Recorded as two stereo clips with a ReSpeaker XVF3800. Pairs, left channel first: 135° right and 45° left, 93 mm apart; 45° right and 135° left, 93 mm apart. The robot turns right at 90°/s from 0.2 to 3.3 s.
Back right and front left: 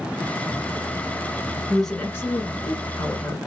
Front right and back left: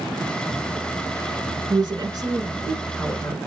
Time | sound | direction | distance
1.7 | a woman speaking | 125° left | 1.9 m